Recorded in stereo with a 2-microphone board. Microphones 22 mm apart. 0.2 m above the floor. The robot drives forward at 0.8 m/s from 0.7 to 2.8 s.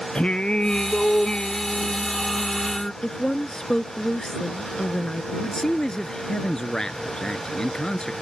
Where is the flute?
No flute in this recording.